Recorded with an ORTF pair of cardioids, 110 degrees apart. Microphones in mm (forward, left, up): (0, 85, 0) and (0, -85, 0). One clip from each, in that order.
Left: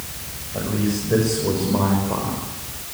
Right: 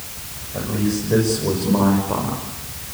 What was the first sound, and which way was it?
A man speaking, straight ahead.